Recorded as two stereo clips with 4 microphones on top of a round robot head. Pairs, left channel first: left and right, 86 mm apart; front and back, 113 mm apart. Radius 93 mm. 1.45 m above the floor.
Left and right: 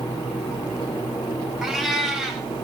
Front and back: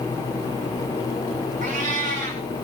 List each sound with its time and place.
1.6 s a cat meowing: 175° right, 5.5 m